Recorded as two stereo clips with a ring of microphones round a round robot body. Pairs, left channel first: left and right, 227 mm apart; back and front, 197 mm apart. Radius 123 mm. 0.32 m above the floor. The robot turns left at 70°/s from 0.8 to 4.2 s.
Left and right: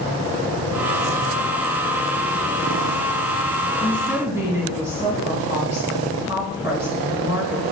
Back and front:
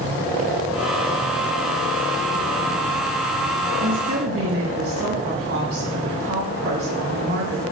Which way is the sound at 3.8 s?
15° left.